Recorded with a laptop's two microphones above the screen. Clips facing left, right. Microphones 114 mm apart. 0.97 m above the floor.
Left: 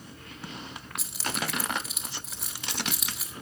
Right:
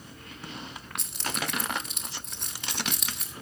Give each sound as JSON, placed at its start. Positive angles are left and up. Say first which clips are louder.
{"t": 1.0, "sound": "keys jangling", "louder": "left 1 dB", "side_deg": 5, "distance_m": 1.6}